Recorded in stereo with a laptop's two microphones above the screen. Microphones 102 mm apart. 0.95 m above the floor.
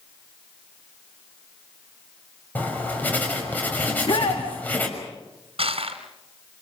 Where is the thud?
No thud in this recording.